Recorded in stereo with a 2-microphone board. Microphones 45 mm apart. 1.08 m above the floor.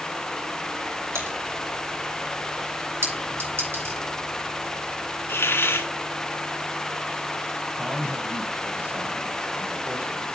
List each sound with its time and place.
1.1 s typing on a keyboard: 80° right, 4 m
3.0 s a clink: 55° right (ahead or behind), 6 m
5.3 s a hiss: 60° left (ahead or behind), 2.5 m
7.8 s a man speaking: 30° right (ahead or behind), 5 m